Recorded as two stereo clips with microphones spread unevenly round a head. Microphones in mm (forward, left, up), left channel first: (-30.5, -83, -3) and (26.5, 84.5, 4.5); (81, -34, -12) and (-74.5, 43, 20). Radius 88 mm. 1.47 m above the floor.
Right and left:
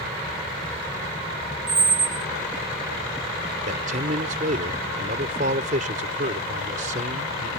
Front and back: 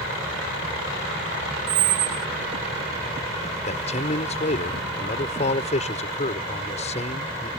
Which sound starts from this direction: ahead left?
A man speaking, at 3.7 s.